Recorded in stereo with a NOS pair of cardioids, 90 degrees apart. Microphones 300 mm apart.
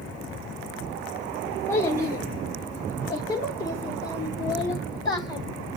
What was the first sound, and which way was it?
A child speaking, 10° left.